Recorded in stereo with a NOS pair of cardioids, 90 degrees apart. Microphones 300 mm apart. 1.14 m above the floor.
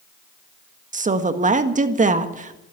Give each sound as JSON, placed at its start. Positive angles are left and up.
{"t": 0.9, "sound": "a woman speaking", "azimuth_deg": -25, "distance_m": 1.7}